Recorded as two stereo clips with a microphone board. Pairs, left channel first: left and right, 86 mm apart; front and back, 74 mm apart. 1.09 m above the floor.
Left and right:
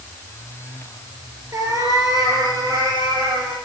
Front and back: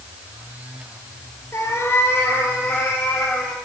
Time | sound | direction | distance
1.5 | a cat meowing | 45° right | 2.5 m